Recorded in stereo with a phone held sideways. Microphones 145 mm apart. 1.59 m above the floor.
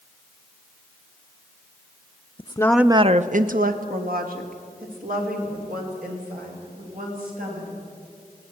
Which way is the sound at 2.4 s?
40° left (ahead or behind).